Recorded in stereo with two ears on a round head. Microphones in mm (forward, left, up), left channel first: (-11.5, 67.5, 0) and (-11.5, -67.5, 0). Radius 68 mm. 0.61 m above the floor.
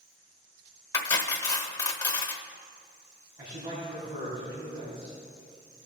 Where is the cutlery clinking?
25° left (ahead or behind), 1.0 m.